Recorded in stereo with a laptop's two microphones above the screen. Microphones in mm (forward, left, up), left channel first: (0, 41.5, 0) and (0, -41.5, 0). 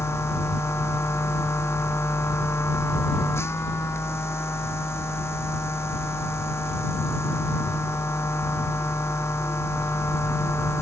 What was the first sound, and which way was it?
A machine running, 30° left (ahead or behind).